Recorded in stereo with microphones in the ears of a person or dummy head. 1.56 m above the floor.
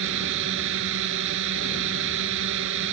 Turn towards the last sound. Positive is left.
turn(degrees=-70)  # may be behind; listen again after turning